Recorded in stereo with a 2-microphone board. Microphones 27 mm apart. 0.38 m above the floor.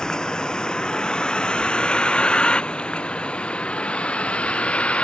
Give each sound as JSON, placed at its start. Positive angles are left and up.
{"t": 0.0, "sound": "a vehicle", "side_deg": 25}